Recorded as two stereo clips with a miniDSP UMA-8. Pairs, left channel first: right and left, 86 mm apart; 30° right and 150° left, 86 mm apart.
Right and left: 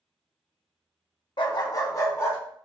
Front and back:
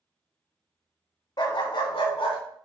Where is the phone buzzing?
No phone buzzing in this recording.